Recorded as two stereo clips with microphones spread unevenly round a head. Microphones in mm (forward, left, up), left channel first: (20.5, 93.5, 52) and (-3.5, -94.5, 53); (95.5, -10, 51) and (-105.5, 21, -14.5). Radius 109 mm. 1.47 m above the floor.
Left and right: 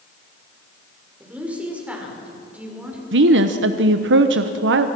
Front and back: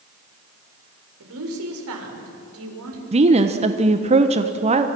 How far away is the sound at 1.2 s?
About 6 m.